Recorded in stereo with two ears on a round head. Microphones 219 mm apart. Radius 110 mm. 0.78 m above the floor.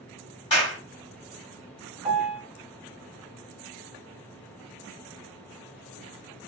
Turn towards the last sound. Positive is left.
turn(degrees=-35)  # may be behind; listen again after turning